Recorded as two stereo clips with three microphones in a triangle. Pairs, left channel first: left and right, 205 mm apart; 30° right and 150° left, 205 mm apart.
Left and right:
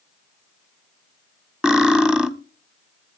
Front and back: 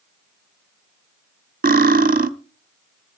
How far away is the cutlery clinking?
About 0.7 m.